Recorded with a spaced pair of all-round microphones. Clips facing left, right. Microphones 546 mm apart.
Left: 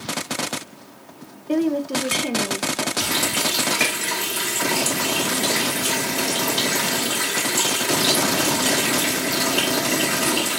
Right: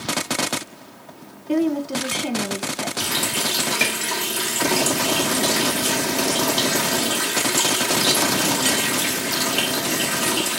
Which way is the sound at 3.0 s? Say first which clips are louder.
Left 2 dB; 45° left (ahead or behind).